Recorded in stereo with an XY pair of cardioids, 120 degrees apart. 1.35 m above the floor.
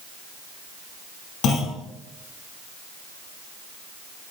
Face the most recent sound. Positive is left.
turn(degrees=60)